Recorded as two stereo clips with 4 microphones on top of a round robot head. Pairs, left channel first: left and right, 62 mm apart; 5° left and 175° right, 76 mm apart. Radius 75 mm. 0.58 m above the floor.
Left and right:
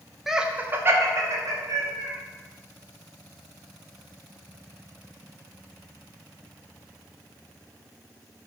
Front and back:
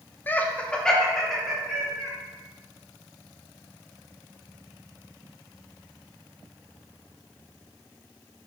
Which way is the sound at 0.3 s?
5° right.